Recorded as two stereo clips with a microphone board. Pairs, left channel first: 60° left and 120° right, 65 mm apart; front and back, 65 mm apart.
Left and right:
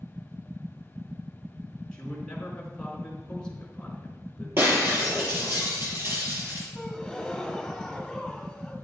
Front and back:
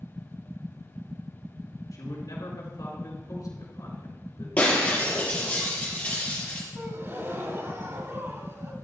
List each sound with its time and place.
1.9 s a man speaking: 15° right, 4 m
4.6 s breaking glass: 70° right, 5.5 m
6.8 s a gasp: 145° left, 1.4 m